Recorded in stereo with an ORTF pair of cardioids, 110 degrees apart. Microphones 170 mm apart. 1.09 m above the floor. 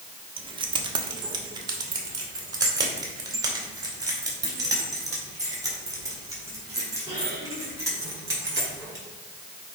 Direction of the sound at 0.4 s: 30° right.